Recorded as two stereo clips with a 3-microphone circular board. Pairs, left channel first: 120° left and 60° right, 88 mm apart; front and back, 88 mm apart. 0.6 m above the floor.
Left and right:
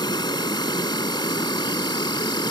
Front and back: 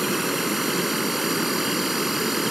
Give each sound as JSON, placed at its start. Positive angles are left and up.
{"t": 0.0, "sound": "an insect", "azimuth_deg": 95}